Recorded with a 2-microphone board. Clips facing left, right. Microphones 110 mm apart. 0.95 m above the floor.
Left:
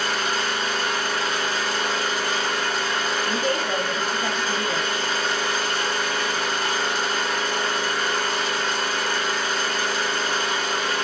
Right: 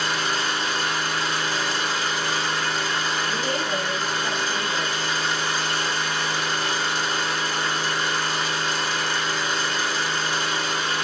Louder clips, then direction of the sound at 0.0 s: Left 1 dB; 50° left (ahead or behind).